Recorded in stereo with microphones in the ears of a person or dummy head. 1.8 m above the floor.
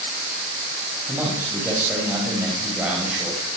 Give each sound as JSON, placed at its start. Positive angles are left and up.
{"t": 1.1, "sound": "a man speaking", "side_deg": -15, "distance_m": 9.0}